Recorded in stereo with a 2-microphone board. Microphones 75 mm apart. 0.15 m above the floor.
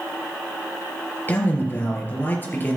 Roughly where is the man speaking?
Left.